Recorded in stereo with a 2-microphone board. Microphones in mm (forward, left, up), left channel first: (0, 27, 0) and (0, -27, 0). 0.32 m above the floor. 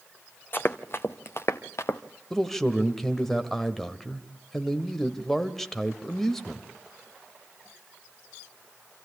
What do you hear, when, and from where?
0.5 s running footsteps: 45° left (ahead or behind), 1.2 m; by 2.0 s 70° left (ahead or behind), 1.5 m
2.3 s a man speaking: 5° left (ahead or behind), 1.3 m